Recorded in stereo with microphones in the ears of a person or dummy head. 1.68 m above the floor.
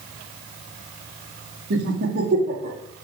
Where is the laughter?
55° right (ahead or behind), 1.3 m; by 2.8 s 40° right (ahead or behind), 2 m.